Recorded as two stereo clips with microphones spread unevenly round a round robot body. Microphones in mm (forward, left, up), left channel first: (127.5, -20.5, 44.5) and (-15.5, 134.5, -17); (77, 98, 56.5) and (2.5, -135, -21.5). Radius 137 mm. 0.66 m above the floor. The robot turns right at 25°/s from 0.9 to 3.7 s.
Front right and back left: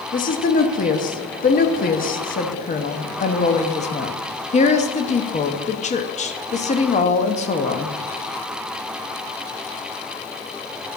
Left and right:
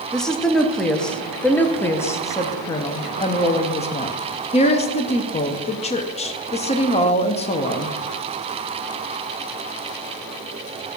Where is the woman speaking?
70° right, 0.9 m; by 8.0 s straight ahead, 0.9 m.